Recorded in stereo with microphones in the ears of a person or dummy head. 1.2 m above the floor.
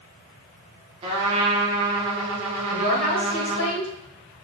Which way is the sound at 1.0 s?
35° right (ahead or behind).